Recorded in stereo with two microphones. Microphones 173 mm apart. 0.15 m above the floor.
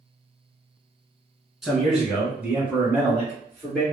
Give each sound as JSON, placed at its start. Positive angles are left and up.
{"t": 1.6, "sound": "a man speaking", "side_deg": 0, "distance_m": 1.4}